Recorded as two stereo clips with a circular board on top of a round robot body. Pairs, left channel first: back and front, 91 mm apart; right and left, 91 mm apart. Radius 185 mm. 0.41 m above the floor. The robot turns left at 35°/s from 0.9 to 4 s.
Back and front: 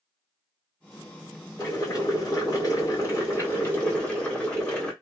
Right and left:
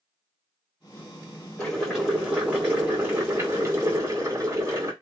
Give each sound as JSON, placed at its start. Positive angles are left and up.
{"t": 1.6, "sound": "boiling", "azimuth_deg": -165, "distance_m": 1.9}